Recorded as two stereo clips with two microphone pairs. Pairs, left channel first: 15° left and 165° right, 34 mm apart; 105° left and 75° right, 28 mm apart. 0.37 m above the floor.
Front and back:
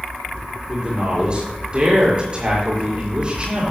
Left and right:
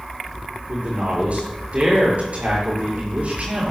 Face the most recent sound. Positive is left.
turn(degrees=-105)